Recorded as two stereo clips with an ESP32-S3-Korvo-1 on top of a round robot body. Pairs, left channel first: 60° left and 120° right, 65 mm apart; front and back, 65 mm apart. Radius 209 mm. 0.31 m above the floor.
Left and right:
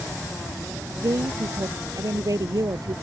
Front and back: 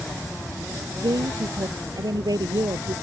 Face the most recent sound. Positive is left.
turn(degrees=-155)